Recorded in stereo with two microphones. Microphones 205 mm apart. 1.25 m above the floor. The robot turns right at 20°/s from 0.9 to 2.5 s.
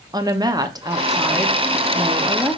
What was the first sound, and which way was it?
A woman speaking, 40° right.